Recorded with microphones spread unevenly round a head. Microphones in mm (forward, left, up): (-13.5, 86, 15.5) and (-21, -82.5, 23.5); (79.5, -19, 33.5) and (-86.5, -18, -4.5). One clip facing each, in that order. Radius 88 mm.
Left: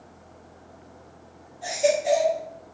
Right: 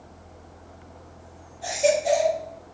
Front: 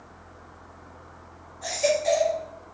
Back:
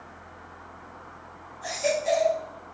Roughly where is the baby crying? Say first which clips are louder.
Right 1 dB, front 3 dB; ahead.